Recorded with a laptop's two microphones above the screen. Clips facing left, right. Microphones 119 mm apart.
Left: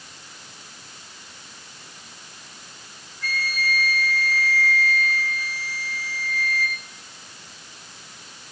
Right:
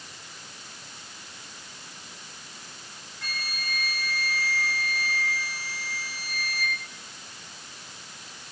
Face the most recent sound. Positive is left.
turn(degrees=-70)  # may be behind; listen again after turning